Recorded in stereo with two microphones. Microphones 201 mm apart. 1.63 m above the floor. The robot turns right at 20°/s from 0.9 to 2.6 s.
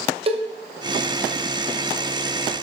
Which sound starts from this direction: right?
A cowbell, at 0.3 s.